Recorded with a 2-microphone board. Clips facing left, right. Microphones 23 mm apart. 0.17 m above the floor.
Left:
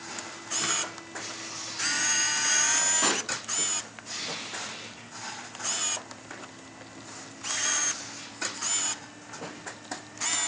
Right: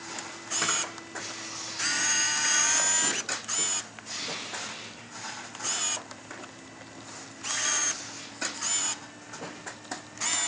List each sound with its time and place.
0.6 s a camera shutter: 50° right (ahead or behind), 6.5 m
3.0 s a pop: 50° left (ahead or behind), 0.7 m